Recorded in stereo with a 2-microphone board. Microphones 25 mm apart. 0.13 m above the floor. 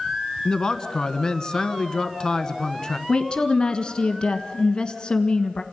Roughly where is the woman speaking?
Left.